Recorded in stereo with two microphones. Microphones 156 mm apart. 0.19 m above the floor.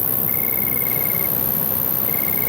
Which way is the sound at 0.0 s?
10° left (ahead or behind).